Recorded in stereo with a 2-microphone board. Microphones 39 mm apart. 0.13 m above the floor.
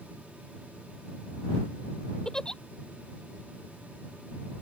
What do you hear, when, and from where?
2.2 s a giggle: 15° left (ahead or behind)